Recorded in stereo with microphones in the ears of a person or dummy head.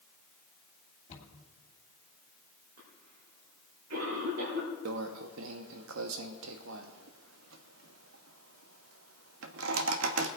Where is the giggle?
I don't hear a giggle.